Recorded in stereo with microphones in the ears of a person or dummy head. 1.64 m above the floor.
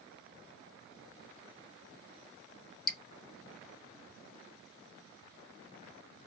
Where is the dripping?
5° left (ahead or behind), 0.8 m.